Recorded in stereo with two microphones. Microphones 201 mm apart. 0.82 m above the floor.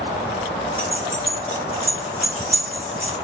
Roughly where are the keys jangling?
Left.